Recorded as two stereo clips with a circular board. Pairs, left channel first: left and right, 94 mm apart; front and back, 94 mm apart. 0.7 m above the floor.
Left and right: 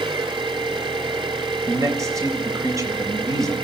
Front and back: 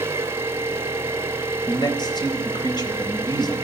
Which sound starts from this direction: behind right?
An engine running, at 0.0 s.